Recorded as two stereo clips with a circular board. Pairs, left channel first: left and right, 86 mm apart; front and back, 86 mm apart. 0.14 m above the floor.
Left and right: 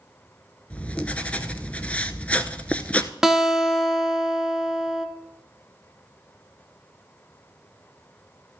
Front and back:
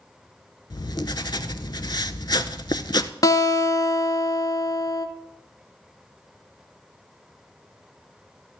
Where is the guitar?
10° right, 0.7 m.